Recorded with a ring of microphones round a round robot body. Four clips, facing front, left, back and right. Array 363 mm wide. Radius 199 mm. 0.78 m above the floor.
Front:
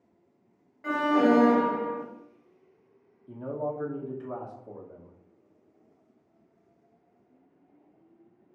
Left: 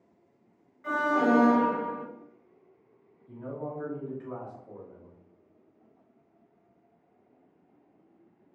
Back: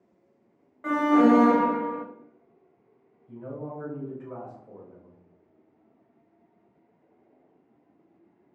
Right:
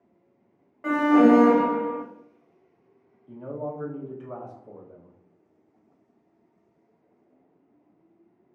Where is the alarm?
110° right, 0.6 m.